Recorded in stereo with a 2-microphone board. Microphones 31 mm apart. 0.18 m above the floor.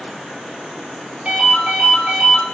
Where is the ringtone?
50° right (ahead or behind), 1.9 m.